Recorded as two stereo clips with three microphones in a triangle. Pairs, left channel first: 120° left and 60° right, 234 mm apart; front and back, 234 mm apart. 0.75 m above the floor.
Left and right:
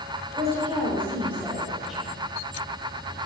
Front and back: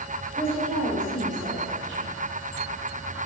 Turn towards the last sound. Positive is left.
turn(degrees=-155)